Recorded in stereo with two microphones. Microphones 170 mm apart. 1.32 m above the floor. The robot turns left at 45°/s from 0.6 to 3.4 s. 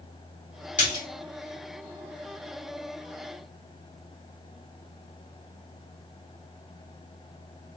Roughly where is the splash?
Left.